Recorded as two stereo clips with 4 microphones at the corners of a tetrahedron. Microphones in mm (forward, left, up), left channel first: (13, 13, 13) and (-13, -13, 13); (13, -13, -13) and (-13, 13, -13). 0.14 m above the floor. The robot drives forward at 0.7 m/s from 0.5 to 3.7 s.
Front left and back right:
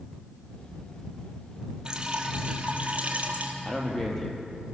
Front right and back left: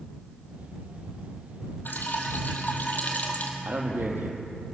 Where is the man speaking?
120° left, 4.5 m.